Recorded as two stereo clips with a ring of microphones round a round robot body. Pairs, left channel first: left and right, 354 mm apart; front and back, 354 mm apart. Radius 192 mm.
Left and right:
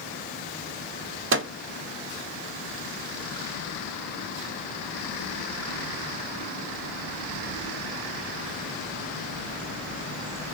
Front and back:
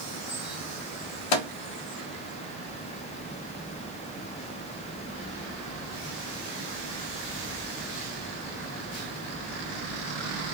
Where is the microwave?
30° right, 0.6 m.